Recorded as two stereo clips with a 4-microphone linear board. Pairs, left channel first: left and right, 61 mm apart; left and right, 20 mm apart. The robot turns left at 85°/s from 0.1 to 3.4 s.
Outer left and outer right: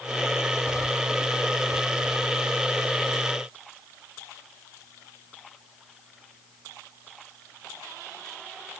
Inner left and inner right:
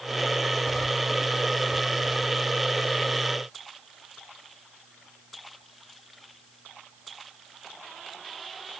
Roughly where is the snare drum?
I don't hear a snare drum.